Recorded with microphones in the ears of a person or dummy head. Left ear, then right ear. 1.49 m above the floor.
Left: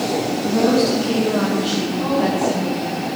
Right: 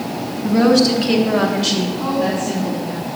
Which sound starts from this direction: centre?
A woman speaking, at 2.0 s.